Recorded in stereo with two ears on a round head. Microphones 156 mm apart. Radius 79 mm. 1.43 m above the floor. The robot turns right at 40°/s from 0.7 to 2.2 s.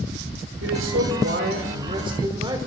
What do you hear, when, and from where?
0.6 s a man speaking: 85° right, 5 m; by 2.6 s 25° right, 5 m